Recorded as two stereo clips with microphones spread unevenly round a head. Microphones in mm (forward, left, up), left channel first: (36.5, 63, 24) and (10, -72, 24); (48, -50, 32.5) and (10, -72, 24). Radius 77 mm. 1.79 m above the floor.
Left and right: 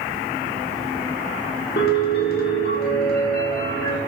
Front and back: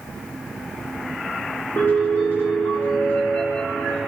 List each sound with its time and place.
1.8 s a piano: 95° left, 0.9 m